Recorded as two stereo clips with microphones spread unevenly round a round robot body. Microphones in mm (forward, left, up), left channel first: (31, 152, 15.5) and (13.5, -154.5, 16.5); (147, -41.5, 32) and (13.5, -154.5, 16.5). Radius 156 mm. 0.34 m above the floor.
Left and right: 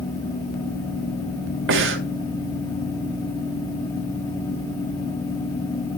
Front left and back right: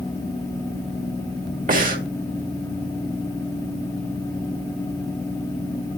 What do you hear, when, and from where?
1.7 s breathing: 135° right, 2 m